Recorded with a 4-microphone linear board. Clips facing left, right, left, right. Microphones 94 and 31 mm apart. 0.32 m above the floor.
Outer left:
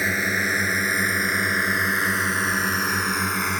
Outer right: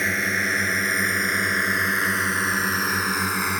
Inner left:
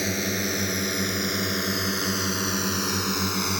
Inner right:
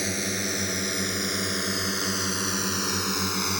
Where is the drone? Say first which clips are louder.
Outer left 1 dB, inner left 2 dB; 5° left (ahead or behind); by 3.6 s 5° right (ahead or behind).